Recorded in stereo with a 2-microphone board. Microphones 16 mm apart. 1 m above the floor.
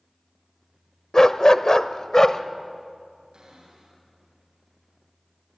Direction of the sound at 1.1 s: 40° left (ahead or behind).